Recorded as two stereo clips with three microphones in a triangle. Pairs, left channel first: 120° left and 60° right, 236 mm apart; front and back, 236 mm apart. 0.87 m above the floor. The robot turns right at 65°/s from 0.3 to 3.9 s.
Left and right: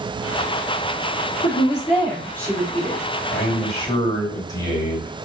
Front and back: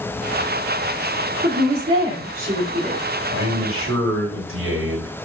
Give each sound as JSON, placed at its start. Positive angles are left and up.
{"t": 1.4, "sound": "a woman speaking", "azimuth_deg": 140, "distance_m": 2.0}
{"t": 3.3, "sound": "a man speaking", "azimuth_deg": 150, "distance_m": 1.9}